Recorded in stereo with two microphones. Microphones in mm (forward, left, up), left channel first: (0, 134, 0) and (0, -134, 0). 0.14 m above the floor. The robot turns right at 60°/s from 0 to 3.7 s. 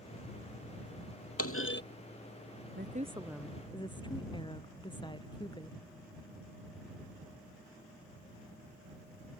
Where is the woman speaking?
40° right; by 5.8 s 15° left.